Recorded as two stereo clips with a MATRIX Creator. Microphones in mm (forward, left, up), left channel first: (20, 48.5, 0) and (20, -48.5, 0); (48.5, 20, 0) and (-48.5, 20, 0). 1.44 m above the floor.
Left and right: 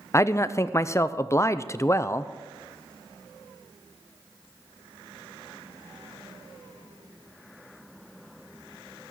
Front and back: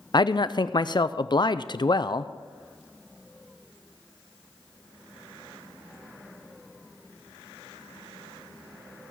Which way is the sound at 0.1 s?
35° left.